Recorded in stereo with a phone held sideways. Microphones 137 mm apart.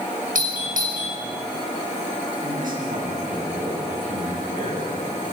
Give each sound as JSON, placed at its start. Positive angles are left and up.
{"t": 0.3, "sound": "a doorbell", "side_deg": -80, "distance_m": 6.0}
{"t": 2.4, "sound": "a man speaking", "side_deg": -85, "distance_m": 7.5}